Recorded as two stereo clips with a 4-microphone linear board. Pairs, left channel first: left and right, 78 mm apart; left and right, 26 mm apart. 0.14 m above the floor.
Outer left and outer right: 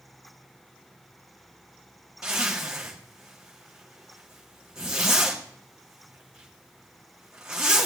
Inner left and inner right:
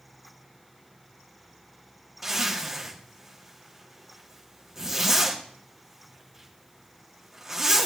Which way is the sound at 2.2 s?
10° right (ahead or behind).